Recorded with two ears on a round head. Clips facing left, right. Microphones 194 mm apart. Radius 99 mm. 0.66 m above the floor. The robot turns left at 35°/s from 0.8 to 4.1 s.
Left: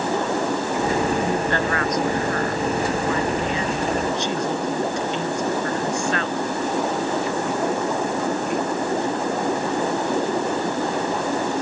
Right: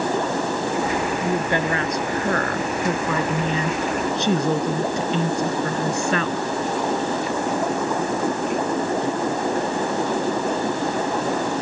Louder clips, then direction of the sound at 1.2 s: Even; straight ahead.